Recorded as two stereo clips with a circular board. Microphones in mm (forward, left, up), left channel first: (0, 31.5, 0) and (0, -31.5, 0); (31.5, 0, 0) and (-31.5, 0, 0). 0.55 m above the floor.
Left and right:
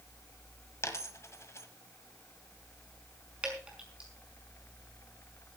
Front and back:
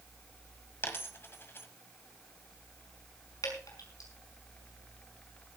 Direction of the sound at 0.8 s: 50° left.